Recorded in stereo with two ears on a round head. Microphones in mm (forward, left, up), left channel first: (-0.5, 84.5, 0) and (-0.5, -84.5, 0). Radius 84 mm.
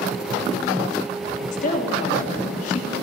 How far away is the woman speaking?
About 3 m.